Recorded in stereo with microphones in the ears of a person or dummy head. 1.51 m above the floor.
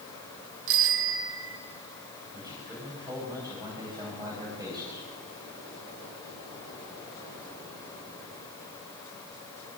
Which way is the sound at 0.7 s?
70° right (ahead or behind).